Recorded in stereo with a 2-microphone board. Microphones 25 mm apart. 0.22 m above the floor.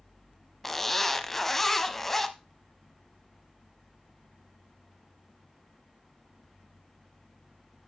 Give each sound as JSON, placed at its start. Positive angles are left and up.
{"t": 0.6, "sound": "a zipper", "side_deg": 10, "distance_m": 0.7}